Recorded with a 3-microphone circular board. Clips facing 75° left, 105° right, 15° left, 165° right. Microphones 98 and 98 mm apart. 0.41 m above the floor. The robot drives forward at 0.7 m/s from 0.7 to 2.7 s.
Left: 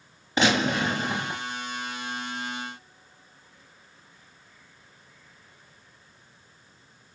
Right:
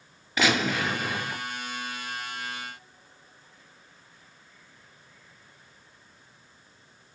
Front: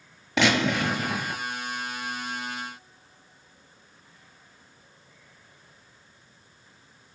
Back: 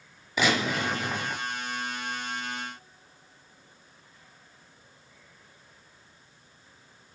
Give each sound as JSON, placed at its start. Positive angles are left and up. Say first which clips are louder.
{"t": 0.4, "sound": "a gunshot", "louder": "left 2 dB, front 3 dB", "azimuth_deg": 15, "distance_m": 5.0}